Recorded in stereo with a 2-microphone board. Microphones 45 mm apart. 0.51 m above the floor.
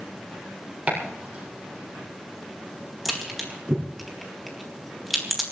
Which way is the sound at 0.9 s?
25° right (ahead or behind).